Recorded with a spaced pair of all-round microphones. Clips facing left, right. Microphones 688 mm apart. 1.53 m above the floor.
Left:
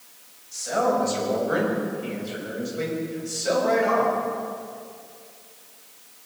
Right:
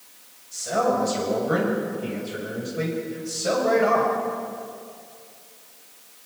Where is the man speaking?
60° right (ahead or behind), 7 m; by 4.2 s 80° right, 6.5 m.